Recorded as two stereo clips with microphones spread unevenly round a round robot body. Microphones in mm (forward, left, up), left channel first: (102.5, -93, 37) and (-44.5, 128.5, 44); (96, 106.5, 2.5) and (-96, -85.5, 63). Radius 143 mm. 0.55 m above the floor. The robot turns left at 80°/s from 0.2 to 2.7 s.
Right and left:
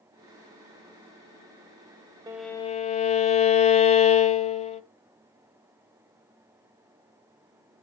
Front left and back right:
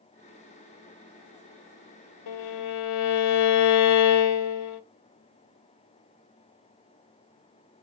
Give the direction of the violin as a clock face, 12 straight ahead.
10 o'clock.